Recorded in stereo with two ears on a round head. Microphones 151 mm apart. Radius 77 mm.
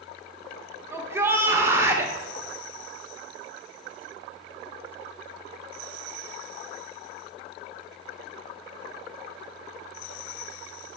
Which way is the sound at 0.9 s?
15° right (ahead or behind).